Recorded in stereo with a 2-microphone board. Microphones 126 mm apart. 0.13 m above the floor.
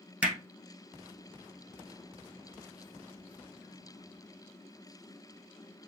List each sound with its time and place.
0.2 s hammering: 10° right (ahead or behind), 1.5 m